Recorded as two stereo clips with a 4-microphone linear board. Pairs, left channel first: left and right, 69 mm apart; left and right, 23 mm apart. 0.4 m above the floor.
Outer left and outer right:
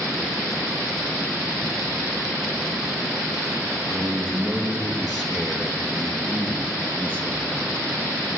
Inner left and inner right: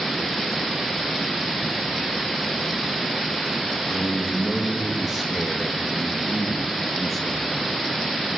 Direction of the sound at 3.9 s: 10° right (ahead or behind).